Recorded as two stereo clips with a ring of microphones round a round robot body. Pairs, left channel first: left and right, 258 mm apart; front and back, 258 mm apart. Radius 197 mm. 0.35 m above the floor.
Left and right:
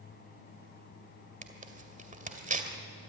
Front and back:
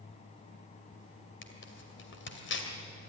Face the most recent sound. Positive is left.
turn(degrees=-35)